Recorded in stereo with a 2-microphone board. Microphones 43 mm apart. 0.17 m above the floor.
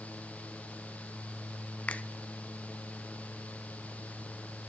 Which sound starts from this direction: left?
A finger snap, at 1.9 s.